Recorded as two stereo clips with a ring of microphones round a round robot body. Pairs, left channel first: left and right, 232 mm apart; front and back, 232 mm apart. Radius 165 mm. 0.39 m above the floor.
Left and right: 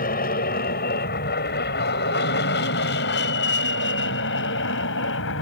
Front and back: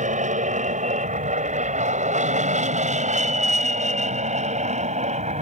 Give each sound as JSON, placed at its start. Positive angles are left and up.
{"t": 0.0, "sound": "an aircraft", "azimuth_deg": 135}